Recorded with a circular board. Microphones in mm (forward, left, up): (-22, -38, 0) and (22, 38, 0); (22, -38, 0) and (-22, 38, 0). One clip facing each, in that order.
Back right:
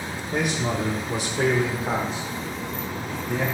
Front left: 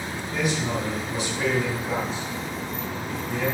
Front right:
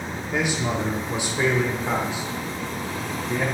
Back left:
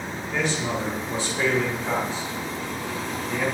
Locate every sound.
0.3 s a man speaking: 130° right, 2.0 m; by 3.5 s 135° right, 3.5 m